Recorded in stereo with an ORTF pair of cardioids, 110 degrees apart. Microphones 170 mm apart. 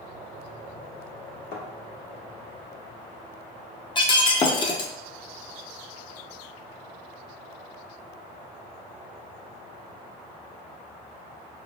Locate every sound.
1.5 s a thud: 65° left, 1.2 m
4.0 s breaking glass: 30° left, 0.6 m